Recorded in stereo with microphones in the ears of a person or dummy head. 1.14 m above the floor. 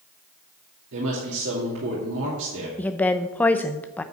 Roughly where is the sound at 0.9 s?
Right.